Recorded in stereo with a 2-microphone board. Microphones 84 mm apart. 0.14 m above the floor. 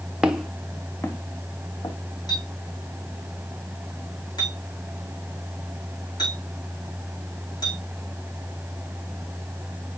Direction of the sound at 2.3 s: 55° left (ahead or behind).